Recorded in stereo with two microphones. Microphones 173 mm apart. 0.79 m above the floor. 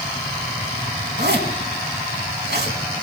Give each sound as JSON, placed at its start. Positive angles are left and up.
{"t": 1.2, "sound": "a zipper", "side_deg": -90, "distance_m": 3.5}